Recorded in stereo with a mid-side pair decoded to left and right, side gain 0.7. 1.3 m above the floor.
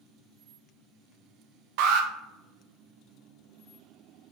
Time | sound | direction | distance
1.8 | an alarm | 70° right | 0.9 m